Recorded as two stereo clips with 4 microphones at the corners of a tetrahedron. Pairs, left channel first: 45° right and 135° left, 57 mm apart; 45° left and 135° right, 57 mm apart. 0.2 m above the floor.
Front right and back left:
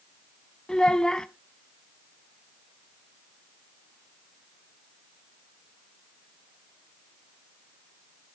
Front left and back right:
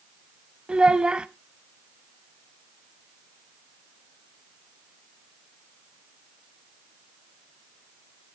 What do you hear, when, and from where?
0.7 s a child speaking: 100° right, 0.6 m